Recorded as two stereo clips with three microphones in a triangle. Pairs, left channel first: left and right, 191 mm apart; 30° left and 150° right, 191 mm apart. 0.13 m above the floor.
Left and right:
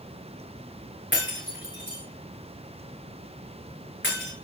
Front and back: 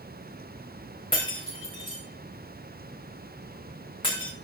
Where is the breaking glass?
90° left, 9 m.